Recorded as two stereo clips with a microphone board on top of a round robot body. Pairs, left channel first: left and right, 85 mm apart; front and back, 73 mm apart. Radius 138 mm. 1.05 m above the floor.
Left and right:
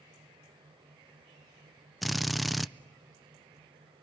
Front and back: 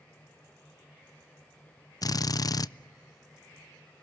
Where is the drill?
Straight ahead, 0.5 m.